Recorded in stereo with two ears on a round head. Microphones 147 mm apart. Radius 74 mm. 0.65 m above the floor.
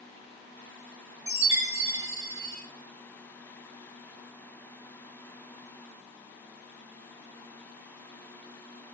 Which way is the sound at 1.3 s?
20° right (ahead or behind).